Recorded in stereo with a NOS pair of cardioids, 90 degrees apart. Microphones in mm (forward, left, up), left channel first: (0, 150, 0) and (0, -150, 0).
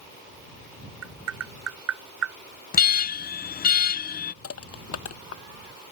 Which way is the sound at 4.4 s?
50° left.